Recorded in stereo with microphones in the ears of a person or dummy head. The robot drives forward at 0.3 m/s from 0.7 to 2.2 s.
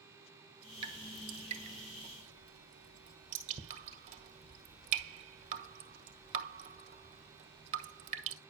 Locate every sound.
0.8 s dripping: 30° right (ahead or behind), 1.9 m; by 8.4 s 35° right (ahead or behind), 1.6 m